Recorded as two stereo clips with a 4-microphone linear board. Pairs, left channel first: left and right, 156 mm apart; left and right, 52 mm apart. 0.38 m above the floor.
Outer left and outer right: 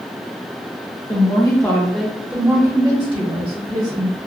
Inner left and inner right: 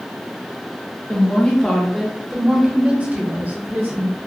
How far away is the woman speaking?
About 1.1 m.